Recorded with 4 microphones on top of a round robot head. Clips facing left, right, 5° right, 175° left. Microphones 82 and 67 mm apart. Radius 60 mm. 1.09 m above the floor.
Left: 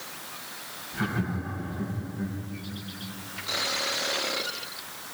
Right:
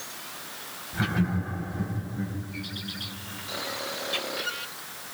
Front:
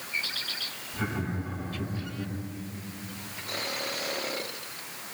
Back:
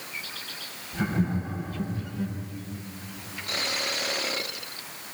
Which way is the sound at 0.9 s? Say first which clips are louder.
Right 2 dB, back 5 dB; 140° right.